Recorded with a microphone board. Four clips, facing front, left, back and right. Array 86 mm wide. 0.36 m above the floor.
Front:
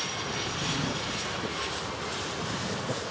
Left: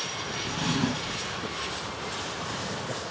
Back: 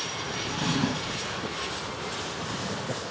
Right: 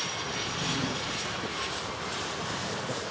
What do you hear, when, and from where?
0.5 s a drawer: 140° left, 0.7 m